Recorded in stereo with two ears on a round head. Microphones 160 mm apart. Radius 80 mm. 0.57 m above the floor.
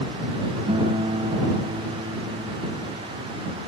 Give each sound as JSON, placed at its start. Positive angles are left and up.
{"t": 0.7, "sound": "a guitar", "side_deg": -30}